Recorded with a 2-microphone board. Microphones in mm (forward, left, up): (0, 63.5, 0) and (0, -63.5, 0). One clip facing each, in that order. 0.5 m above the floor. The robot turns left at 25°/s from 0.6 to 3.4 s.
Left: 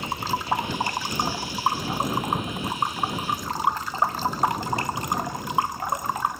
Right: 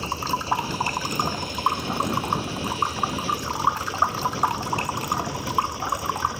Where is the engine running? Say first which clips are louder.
Right 1 dB; 30° right; by 6.4 s 100° right.